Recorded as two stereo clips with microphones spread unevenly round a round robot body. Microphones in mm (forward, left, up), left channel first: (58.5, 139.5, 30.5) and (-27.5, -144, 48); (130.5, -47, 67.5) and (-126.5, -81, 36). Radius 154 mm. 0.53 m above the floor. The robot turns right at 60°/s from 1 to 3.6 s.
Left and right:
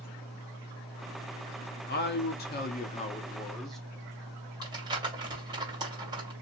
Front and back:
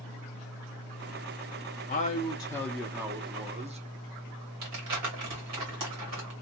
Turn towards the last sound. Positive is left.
turn(degrees=175)